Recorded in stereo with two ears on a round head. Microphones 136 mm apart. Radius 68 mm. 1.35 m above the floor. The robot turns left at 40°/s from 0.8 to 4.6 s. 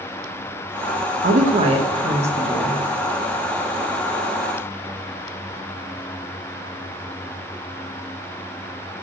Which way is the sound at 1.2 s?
120° right.